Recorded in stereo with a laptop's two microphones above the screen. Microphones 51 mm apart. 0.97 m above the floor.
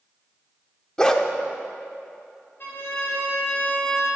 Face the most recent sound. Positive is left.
turn(degrees=45)  # may be behind; listen again after turning